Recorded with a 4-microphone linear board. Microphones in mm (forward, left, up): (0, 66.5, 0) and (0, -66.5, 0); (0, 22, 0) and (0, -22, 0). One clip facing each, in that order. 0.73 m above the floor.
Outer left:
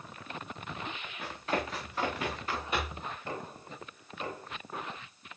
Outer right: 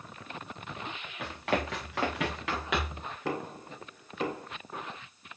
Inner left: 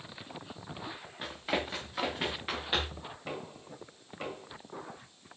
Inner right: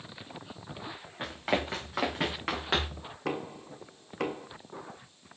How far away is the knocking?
About 1.6 m.